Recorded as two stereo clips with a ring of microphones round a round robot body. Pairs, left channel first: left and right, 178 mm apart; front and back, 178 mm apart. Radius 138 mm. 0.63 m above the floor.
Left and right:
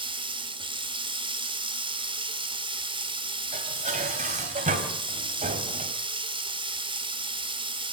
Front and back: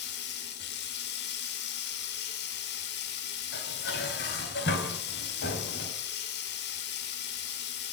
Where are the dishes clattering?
40° right, 3 m.